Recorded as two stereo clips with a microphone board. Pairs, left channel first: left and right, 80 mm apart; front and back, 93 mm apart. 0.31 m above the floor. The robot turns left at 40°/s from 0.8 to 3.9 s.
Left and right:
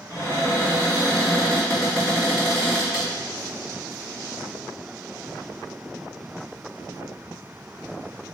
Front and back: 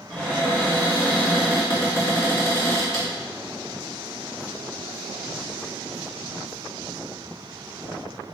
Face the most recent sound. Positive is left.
turn(degrees=-60)